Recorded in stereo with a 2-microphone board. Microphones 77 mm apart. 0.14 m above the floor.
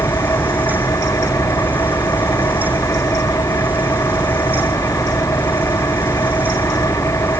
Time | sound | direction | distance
0.0 | an engine running | 40° left (ahead or behind) | ?